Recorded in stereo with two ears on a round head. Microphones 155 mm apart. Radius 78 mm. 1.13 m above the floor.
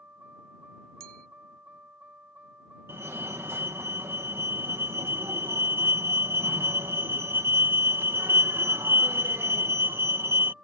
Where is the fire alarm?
15° right (ahead or behind).